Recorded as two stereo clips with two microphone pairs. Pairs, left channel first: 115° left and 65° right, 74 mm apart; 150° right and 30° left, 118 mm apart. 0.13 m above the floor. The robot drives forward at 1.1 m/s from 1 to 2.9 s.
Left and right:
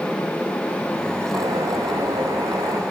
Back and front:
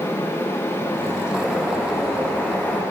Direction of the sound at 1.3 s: 60° right.